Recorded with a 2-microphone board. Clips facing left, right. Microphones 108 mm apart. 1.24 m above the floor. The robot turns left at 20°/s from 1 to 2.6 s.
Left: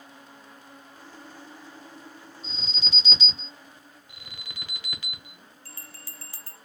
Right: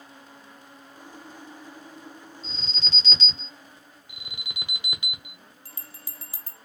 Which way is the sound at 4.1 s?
20° right (ahead or behind).